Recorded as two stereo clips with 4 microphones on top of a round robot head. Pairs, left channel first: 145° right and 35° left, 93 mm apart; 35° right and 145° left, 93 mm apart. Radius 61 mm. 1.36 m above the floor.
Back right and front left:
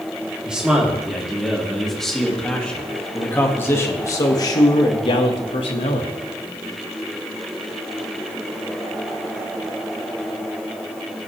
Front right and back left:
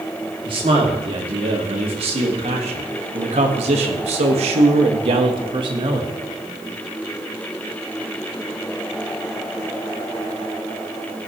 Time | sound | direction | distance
0.4 | a man speaking | 115° left | 3 m